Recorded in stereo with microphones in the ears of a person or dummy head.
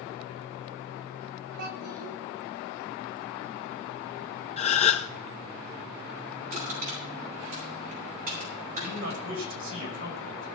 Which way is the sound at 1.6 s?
80° right.